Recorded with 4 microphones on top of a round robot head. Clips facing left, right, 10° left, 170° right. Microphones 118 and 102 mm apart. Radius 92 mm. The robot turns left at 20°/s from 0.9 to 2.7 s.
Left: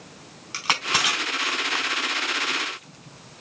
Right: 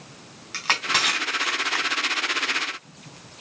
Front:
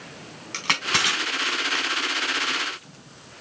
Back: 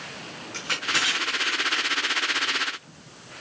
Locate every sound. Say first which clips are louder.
0.5 s crushing: even, front 3 dB; 10° left, 4.5 m; by 2.7 s 25° right, 4.5 m